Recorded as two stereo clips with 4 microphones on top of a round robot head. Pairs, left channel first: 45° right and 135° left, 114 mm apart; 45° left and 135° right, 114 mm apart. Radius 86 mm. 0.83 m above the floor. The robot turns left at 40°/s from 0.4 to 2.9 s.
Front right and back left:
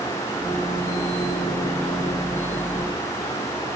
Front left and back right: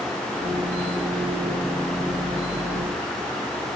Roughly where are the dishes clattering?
I don't hear dishes clattering.